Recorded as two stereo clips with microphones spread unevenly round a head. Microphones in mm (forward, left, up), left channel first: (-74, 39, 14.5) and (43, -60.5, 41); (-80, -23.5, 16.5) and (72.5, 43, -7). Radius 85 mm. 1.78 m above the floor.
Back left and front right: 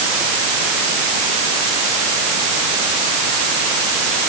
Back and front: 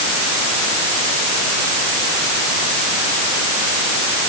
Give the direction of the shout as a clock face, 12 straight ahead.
I don't hear a shout.